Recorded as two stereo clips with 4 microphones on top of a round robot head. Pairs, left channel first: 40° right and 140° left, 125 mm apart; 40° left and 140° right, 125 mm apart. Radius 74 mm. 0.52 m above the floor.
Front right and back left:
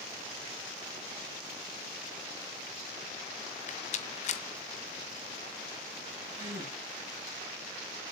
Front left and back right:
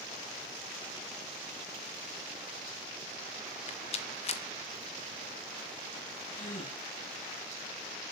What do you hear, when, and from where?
3.7 s a rattle: 5° right, 1.3 m
6.3 s a gasp: 75° left, 6 m